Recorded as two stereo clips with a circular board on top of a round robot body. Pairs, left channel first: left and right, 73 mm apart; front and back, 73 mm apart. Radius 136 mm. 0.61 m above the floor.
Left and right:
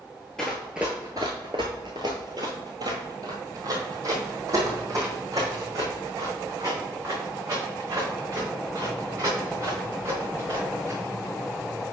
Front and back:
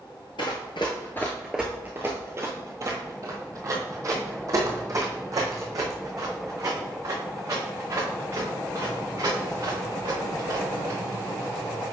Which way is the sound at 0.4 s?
10° left.